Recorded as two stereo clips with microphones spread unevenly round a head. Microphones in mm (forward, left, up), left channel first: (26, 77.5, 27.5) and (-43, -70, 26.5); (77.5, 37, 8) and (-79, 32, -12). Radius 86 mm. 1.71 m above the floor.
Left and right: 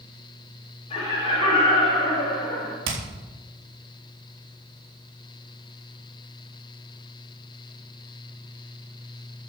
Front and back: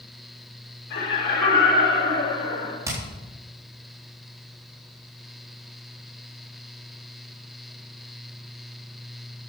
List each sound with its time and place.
0.9 s laughter: 5° left, 6 m; by 2.8 s 5° right, 4.5 m
2.9 s hammering: 105° right, 3.5 m